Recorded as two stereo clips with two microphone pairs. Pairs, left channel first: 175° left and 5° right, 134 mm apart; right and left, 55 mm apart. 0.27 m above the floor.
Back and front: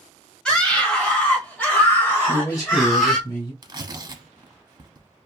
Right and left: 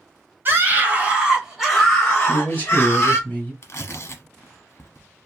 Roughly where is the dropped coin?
I don't hear a dropped coin.